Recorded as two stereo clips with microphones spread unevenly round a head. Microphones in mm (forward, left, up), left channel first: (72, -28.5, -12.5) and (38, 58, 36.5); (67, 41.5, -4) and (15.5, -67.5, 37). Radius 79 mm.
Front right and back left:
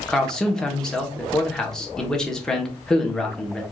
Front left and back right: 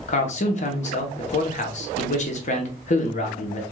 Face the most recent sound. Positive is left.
turn(degrees=35)